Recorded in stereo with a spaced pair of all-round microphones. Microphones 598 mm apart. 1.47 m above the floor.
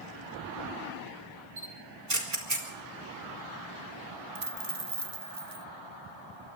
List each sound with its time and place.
1.6 s a camera shutter: 90° right, 4 m
4.3 s a dropped coin: 35° right (ahead or behind), 1.1 m